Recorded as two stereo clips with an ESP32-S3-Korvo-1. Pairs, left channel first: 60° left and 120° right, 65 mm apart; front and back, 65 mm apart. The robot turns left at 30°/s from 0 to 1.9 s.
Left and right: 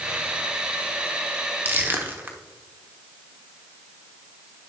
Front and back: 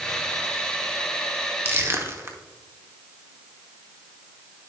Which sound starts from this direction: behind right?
Crushing, at 1.6 s.